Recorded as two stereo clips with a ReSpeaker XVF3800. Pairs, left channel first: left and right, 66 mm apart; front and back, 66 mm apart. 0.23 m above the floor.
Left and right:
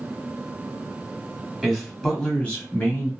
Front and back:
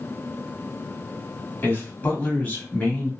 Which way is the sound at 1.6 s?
10° right.